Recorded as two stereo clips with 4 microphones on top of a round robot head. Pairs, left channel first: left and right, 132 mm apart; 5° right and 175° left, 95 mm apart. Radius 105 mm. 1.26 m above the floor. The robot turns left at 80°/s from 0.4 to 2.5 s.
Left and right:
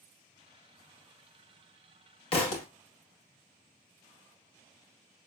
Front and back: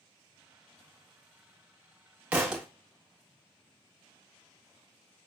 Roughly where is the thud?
Left.